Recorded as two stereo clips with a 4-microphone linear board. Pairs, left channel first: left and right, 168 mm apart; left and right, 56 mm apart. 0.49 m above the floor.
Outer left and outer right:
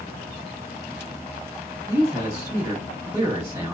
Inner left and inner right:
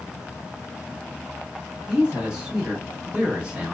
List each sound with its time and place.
1.9 s a man speaking: 20° right (ahead or behind), 0.9 m